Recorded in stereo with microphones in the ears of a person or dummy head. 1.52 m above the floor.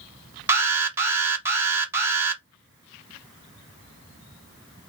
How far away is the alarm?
About 0.7 m.